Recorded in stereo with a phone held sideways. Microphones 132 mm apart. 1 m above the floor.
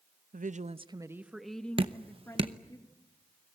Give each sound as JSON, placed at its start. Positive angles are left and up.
{"t": 0.3, "sound": "a woman speaking", "side_deg": -70, "distance_m": 0.8}
{"t": 1.8, "sound": "dripping", "side_deg": -40, "distance_m": 1.0}